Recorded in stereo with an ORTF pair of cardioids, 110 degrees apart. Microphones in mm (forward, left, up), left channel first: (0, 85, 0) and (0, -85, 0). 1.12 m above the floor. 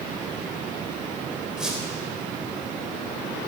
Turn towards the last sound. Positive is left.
turn(degrees=-5)